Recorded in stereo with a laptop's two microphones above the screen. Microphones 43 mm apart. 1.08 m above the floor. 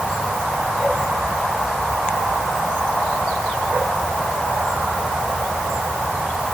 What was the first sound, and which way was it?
Only background noise.